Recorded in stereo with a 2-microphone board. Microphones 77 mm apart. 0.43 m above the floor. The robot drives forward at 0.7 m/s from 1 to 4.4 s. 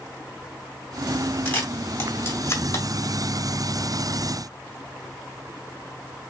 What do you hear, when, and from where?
1.4 s a camera shutter: 25° left (ahead or behind), 2 m; by 2.8 s 40° left (ahead or behind), 1.4 m